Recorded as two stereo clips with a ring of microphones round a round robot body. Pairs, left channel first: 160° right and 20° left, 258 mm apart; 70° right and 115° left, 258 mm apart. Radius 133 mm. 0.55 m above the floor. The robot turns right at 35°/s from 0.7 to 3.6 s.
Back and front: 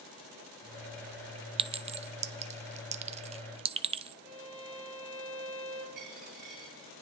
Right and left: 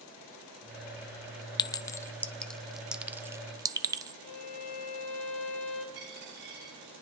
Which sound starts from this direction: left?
A dropped coin, at 6.0 s.